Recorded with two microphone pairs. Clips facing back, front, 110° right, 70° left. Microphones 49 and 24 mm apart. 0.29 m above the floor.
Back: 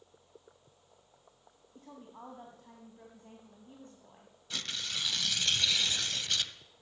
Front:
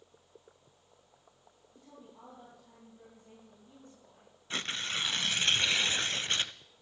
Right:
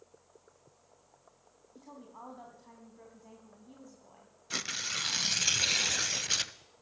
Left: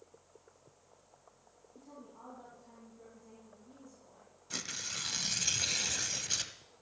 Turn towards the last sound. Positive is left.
turn(degrees=-50)